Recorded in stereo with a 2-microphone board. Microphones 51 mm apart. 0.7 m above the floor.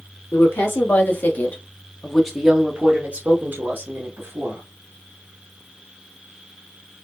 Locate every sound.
0.3 s a woman speaking: 55° left (ahead or behind), 1.4 m; by 4.7 s 60° right (ahead or behind), 1.5 m